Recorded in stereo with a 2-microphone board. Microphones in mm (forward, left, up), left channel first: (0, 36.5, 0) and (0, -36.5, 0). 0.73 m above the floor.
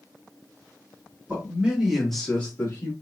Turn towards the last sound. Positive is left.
turn(degrees=40)  # may be behind; listen again after turning